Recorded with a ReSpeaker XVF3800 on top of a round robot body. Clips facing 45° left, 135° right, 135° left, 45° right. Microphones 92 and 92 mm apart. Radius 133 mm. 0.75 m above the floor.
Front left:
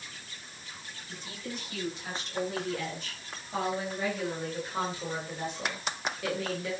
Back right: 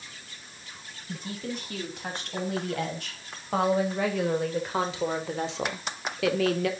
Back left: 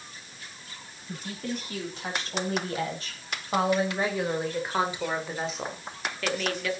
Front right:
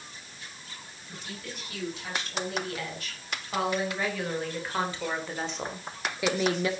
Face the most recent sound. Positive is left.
turn(degrees=-110)